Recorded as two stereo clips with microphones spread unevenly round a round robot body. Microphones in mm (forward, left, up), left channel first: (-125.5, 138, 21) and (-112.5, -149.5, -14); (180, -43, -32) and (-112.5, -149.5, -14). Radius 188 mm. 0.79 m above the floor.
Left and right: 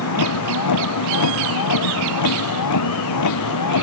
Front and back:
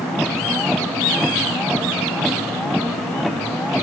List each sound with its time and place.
0.0 s a vehicle: 110° left